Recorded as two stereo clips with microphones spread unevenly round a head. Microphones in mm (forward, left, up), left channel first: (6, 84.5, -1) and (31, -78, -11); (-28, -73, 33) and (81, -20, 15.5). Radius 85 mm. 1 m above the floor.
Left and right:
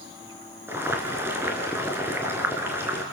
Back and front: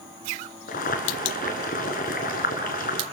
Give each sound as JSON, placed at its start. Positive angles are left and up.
{"t": 0.7, "sound": "boiling", "azimuth_deg": -160, "distance_m": 3.5}